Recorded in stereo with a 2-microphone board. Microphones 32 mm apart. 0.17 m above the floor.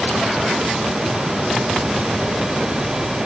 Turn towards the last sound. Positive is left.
No sound to turn to.